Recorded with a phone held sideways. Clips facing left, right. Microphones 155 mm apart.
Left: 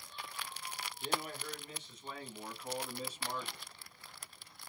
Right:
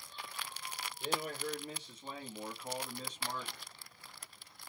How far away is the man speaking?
About 1.1 m.